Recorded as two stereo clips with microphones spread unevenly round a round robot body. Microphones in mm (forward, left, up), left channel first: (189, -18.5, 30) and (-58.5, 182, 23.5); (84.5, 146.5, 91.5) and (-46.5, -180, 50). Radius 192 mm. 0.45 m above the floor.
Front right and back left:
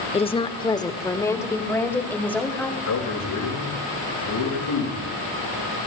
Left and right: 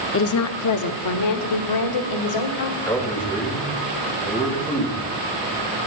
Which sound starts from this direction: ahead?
A man speaking, at 2.9 s.